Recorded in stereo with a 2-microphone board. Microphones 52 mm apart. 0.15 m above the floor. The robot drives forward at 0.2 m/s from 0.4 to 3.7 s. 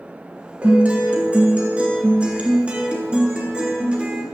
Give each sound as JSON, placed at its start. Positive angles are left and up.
{"t": 0.6, "sound": "a guitar", "side_deg": -25, "distance_m": 1.5}